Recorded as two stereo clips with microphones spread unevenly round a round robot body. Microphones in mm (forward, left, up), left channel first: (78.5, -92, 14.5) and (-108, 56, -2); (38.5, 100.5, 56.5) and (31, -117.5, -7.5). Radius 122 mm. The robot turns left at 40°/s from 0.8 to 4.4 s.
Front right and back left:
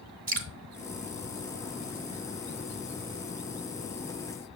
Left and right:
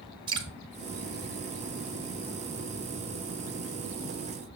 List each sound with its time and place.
0.3 s dripping: 160° right, 0.7 m